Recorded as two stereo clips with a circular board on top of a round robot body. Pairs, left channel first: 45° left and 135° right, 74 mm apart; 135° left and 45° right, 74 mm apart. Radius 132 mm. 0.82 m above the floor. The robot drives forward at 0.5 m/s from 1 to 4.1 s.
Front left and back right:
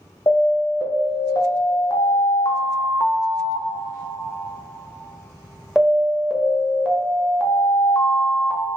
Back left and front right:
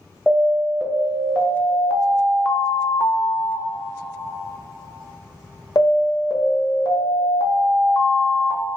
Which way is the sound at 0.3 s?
25° left.